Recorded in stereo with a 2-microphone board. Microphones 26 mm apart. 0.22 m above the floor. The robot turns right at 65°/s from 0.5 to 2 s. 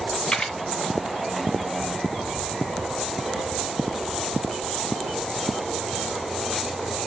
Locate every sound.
0.3 s a camera shutter: 45° left (ahead or behind), 1.8 m; by 0.6 s 40° left (ahead or behind), 1.8 m